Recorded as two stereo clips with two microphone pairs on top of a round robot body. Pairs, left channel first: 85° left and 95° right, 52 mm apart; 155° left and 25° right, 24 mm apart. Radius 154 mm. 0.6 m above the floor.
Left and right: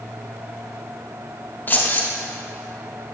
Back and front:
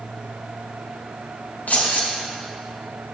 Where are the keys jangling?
140° left, 0.9 m.